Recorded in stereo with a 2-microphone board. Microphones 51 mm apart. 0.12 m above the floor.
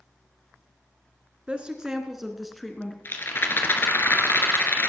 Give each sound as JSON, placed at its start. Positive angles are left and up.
{"t": 1.5, "sound": "a woman speaking", "side_deg": -20, "distance_m": 1.7}
{"t": 3.0, "sound": "a rattle", "side_deg": 45, "distance_m": 2.0}